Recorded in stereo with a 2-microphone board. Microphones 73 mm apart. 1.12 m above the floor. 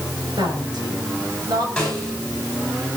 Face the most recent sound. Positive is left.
turn(degrees=5)  # may be behind; listen again after turning